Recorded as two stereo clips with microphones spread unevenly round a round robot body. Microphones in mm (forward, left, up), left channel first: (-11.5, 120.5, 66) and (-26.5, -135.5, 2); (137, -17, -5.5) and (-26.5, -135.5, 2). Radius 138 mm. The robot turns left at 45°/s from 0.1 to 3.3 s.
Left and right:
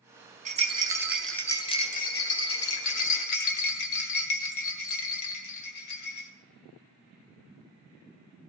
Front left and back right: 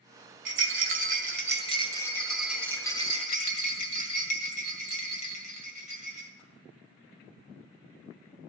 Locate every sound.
0.5 s a rattle: 140° right, 1.9 m; by 6.3 s 90° left, 1.9 m